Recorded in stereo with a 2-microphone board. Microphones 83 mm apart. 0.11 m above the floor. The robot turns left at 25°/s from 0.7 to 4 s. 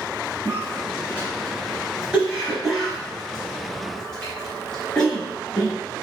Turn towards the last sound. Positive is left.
turn(degrees=10)  # may be behind; listen again after turning